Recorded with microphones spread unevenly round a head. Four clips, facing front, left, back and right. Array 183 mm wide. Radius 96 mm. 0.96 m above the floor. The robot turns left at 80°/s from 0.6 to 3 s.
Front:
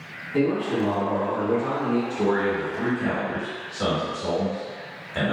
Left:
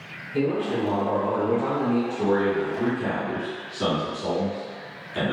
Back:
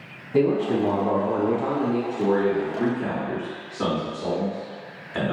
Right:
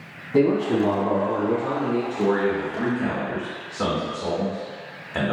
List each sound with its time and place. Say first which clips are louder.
0.3 s a man speaking: right 5 dB, back 2 dB; 110° right, 0.7 m; by 2.0 s 140° left, 0.7 m
2.1 s a man speaking: right 1 dB, back 2 dB; 35° right, 1.9 m; by 5.3 s 105° right, 1.9 m